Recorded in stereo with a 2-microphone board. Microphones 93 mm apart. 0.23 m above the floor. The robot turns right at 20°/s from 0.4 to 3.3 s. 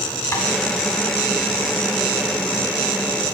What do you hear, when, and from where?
0.3 s tapping: 30° left (ahead or behind), 1.8 m